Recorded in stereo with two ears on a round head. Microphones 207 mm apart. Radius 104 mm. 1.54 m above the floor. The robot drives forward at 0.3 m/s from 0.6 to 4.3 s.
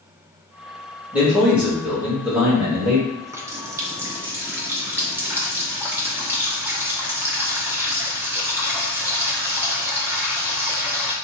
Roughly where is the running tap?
Centre.